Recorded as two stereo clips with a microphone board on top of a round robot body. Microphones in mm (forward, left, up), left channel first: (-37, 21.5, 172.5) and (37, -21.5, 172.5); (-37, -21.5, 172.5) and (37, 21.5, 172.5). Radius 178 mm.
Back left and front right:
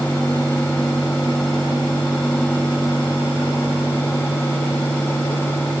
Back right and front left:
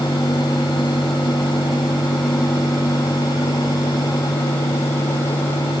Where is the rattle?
No rattle in this recording.